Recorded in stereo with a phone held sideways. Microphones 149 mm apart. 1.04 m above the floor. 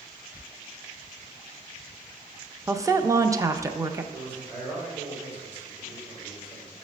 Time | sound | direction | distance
2.7 | a woman speaking | 20° right (ahead or behind) | 0.6 m
4.1 | a man speaking | 35° right (ahead or behind) | 3.5 m